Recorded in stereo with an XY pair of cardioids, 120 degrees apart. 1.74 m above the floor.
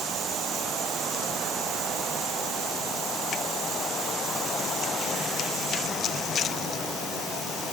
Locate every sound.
Only background noise.